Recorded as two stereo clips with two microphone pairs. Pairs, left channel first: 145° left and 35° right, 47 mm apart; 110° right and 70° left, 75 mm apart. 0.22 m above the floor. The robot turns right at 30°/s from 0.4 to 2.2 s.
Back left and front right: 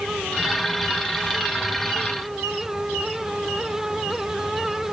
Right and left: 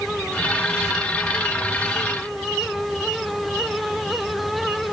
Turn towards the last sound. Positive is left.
No sound to turn to.